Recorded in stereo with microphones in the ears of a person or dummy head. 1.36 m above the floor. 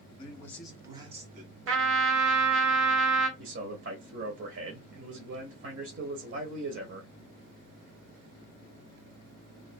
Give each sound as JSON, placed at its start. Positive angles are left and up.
{"t": 0.2, "sound": "a man speaking", "side_deg": 30, "distance_m": 1.3}
{"t": 1.7, "sound": "a trumpet", "side_deg": -65, "distance_m": 0.9}
{"t": 3.4, "sound": "a man speaking", "side_deg": -60, "distance_m": 0.9}